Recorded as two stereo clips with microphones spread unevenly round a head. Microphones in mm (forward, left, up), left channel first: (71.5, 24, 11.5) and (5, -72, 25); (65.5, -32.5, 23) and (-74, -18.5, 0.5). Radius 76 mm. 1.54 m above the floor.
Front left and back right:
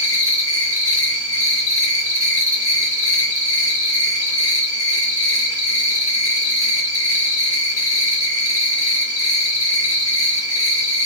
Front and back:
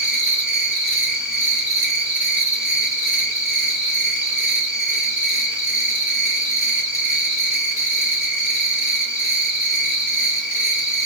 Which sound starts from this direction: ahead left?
An insect, at 0.0 s.